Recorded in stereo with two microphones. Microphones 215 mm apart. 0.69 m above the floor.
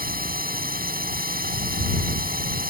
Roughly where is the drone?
Right.